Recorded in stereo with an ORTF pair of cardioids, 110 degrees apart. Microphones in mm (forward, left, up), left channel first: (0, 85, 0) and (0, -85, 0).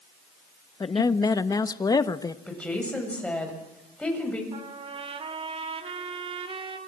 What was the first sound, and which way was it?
A woman speaking, 20° left.